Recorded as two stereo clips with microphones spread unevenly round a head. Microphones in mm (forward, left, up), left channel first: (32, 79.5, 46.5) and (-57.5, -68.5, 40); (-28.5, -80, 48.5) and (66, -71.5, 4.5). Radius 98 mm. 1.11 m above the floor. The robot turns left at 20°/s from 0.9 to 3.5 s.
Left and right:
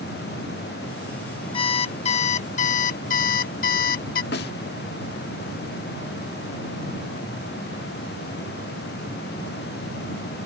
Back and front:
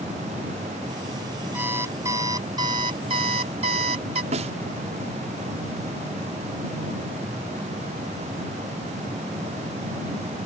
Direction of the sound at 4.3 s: 30° left.